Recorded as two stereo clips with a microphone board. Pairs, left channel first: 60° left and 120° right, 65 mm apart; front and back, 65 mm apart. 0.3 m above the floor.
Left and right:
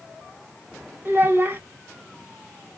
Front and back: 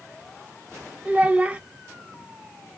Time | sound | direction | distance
1.1 | a child speaking | 130° right | 0.6 m